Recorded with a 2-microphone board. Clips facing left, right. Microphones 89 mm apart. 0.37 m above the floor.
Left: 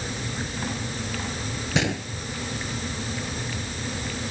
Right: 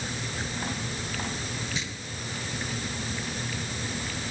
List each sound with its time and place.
1.8 s a gunshot: 70° left (ahead or behind)